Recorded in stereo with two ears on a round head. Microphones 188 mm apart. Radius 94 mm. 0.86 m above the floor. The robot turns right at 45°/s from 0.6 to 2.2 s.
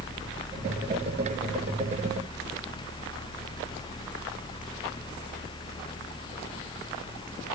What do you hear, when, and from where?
Only background noise.